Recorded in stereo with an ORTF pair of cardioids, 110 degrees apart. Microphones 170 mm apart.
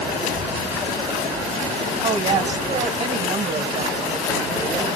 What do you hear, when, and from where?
2.0 s a woman speaking: 40° right, 1.9 m